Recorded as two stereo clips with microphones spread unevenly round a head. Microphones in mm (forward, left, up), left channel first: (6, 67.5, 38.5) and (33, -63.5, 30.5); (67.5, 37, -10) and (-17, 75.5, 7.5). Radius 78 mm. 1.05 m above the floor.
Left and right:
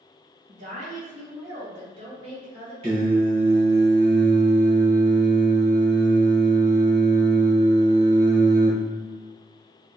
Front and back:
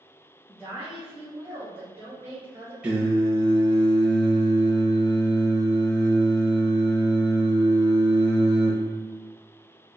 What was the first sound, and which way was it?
A woman speaking, 110° right.